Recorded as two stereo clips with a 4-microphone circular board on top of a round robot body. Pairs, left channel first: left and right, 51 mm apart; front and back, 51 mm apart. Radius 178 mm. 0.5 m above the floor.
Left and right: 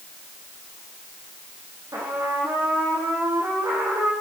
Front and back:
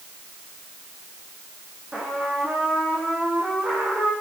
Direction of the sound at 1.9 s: 105° right.